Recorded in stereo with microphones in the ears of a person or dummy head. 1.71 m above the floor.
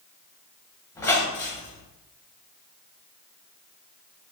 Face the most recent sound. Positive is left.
turn(degrees=20)  # may be behind; listen again after turning